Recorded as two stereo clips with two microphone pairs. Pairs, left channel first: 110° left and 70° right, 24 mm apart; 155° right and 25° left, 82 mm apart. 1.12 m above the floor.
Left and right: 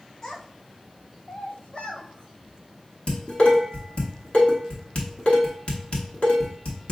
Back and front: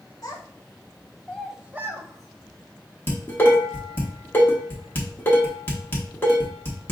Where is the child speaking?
165° left, 1.1 m; by 3.0 s 50° left, 1.2 m.